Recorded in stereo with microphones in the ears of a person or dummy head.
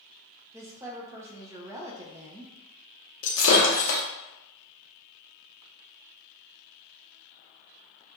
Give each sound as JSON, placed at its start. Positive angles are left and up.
{"t": 0.5, "sound": "a woman speaking", "side_deg": -20, "distance_m": 0.7}
{"t": 3.2, "sound": "breaking glass", "side_deg": 70, "distance_m": 1.1}